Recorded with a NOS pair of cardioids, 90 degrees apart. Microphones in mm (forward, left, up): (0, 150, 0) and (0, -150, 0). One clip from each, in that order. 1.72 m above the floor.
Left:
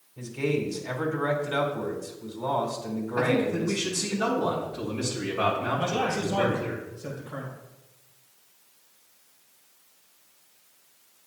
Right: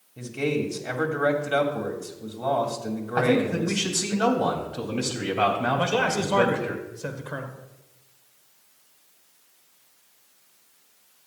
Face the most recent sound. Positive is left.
turn(degrees=-60)